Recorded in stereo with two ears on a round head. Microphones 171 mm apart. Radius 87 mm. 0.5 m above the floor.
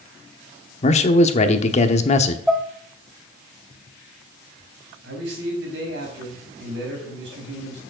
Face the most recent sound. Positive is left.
turn(degrees=-65)  # may be behind; listen again after turning